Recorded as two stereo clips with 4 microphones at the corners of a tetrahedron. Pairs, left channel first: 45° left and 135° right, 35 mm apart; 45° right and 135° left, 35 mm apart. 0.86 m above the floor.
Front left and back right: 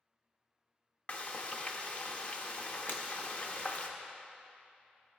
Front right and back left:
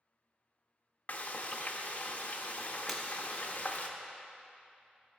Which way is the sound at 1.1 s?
5° right.